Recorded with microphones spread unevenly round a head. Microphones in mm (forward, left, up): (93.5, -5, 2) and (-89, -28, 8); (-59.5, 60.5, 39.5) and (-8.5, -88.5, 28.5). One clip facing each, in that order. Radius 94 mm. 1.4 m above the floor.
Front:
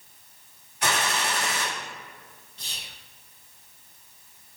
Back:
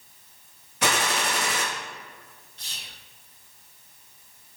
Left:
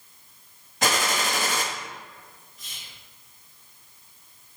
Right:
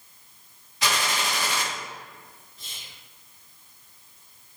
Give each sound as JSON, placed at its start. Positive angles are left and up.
{"t": 0.8, "sound": "a gunshot", "azimuth_deg": 155, "distance_m": 0.9}
{"t": 2.6, "sound": "whispering", "azimuth_deg": -5, "distance_m": 0.7}